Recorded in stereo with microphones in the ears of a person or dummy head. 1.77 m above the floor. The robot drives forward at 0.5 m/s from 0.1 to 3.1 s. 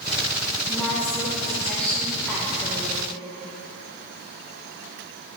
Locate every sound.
0.7 s a woman speaking: 5° left (ahead or behind), 4 m